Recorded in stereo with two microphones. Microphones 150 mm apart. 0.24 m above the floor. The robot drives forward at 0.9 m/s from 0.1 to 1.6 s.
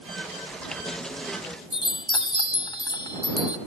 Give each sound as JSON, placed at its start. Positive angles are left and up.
{"t": 1.7, "sound": "a chime", "side_deg": 30, "distance_m": 1.0}